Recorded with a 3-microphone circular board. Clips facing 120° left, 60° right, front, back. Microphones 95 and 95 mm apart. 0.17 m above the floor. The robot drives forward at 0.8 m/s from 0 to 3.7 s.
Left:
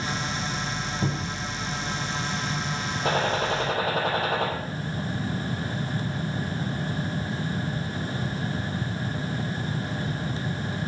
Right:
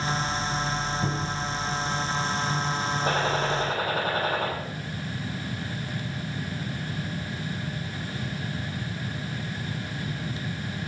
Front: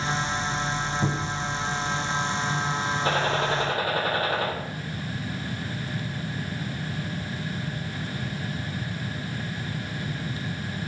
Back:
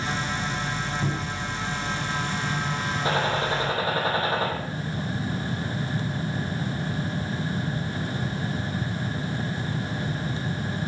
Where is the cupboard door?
70° left, 4 m; by 1.4 s 75° left, 4 m.